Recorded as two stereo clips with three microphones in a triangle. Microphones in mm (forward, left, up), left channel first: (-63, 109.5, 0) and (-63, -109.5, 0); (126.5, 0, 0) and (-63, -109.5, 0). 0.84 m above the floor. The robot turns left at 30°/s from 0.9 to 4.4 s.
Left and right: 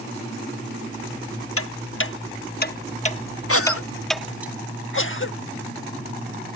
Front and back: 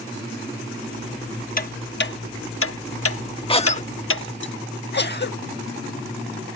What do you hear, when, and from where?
1.6 s ticking: 80° left; by 4.5 s 5° right
3.5 s a cough: 95° left; by 5.4 s 65° left